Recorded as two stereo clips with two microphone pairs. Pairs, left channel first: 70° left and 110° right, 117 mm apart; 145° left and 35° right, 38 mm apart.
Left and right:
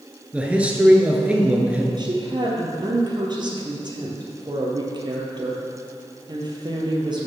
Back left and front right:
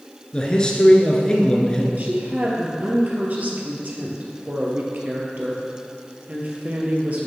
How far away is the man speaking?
About 1.2 m.